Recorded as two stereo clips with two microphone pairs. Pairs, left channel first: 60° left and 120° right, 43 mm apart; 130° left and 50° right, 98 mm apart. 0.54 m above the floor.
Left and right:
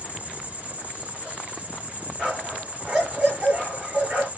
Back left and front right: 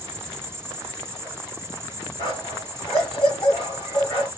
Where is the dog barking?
165° left, 2.5 m.